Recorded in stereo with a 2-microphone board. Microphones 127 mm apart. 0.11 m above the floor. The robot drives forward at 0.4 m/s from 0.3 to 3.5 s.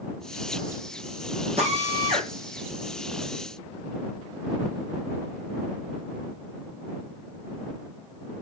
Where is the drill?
55° right (ahead or behind), 4.5 m; by 2.3 s 50° right (ahead or behind), 5 m.